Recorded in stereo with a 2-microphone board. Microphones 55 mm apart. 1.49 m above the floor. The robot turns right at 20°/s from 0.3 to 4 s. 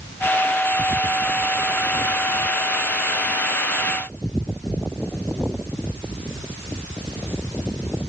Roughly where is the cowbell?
I don't hear a cowbell.